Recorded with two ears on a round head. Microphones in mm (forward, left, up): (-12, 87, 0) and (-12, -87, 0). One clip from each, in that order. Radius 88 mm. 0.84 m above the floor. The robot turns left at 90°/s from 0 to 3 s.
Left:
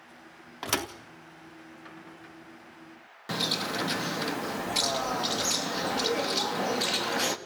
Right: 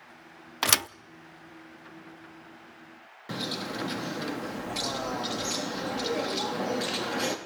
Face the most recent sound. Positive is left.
turn(degrees=35)  # may be behind; listen again after turning